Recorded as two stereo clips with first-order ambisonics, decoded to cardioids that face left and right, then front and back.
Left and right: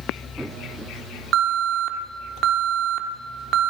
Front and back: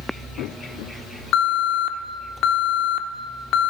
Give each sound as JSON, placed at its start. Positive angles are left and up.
{"t": 1.3, "sound": "an alarm", "azimuth_deg": -40, "distance_m": 0.9}